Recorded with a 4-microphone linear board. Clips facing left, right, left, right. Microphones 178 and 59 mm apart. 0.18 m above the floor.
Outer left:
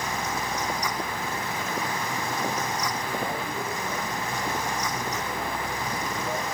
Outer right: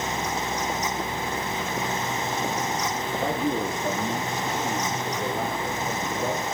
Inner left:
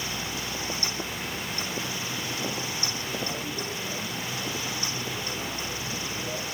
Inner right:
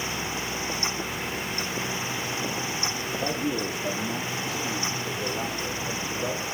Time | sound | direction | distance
3.2 | a man speaking | 70° right (ahead or behind) | 4.5 m